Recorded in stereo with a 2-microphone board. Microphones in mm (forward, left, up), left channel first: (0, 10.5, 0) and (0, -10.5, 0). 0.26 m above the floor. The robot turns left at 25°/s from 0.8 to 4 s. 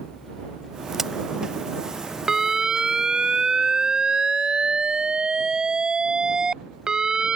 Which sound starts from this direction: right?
A crack, at 0.9 s.